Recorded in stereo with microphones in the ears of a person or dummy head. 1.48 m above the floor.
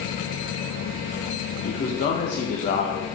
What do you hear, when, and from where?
1.6 s a man speaking: 50° left (ahead or behind), 1.1 m